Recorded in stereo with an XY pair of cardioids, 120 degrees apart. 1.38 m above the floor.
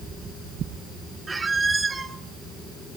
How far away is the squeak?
About 1.4 m.